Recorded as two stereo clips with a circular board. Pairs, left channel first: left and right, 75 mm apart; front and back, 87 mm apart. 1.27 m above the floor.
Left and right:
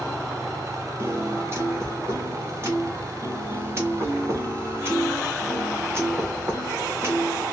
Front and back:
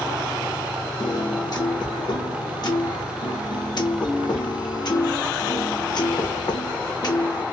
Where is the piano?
35° right, 0.8 m.